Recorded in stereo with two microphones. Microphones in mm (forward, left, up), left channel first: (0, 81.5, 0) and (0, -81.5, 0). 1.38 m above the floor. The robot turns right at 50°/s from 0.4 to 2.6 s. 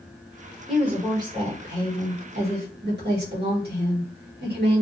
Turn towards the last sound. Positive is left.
turn(degrees=-85)